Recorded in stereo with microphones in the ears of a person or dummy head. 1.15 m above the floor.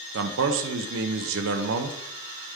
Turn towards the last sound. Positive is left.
turn(degrees=-60)  # may be behind; listen again after turning